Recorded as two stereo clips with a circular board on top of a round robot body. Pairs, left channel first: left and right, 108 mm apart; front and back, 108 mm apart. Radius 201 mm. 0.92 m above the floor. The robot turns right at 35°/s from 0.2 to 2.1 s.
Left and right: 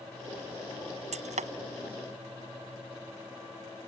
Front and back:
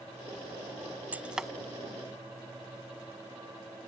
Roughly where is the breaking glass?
Right.